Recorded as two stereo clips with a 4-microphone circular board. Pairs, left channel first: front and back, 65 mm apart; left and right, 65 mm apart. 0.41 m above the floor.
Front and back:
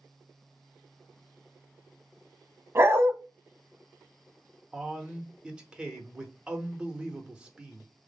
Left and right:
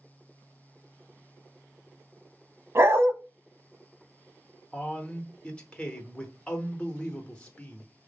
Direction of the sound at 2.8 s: 135° right.